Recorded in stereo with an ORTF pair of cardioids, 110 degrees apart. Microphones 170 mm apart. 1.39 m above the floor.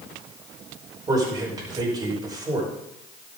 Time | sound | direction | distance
1.1 | a man speaking | 25° right | 5.5 m